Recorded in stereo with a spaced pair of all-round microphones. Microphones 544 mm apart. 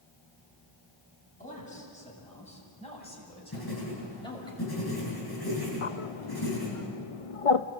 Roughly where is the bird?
Left.